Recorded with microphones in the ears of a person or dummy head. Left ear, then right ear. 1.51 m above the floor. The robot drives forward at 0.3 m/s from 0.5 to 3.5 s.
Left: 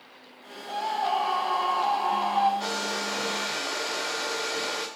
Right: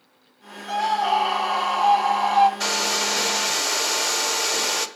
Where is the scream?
65° right (ahead or behind), 1.7 m; by 2.5 s 80° right, 1.5 m.